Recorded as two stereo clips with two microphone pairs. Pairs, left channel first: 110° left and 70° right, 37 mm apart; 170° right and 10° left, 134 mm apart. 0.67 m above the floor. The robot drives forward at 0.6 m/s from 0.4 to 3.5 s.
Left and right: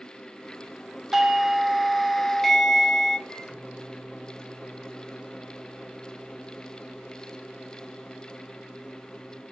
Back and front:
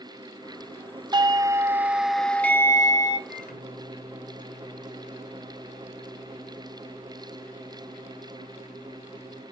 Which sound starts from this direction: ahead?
A doorbell, at 1.1 s.